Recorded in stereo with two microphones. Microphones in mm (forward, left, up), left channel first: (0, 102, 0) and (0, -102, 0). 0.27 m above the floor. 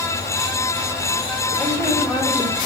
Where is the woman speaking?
10° left (ahead or behind), 1.3 m.